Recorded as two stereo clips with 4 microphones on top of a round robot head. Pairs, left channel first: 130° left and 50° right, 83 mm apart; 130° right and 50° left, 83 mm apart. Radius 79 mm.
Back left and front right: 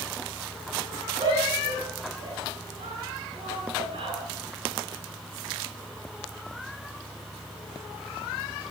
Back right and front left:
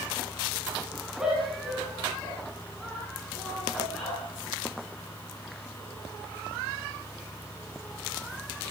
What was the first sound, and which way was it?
A shout, 30° right.